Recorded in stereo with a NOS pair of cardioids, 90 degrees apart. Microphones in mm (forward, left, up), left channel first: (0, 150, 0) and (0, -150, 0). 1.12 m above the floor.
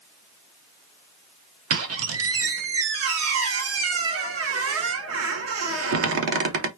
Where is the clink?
I don't hear a clink.